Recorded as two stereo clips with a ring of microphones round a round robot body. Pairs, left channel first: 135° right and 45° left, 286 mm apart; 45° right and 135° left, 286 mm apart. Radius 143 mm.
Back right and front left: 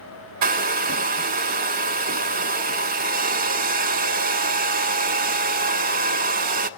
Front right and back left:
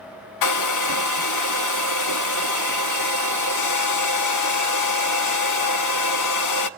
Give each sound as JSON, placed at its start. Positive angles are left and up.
{"t": 0.4, "sound": "a hair dryer", "azimuth_deg": -15, "distance_m": 0.9}